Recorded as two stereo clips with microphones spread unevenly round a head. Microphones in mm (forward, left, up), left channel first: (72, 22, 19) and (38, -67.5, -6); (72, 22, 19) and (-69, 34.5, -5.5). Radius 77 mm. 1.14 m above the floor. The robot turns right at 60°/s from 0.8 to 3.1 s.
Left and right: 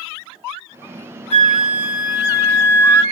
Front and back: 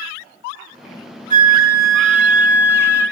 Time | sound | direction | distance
1.3 | a flute | 155° left | 1.0 m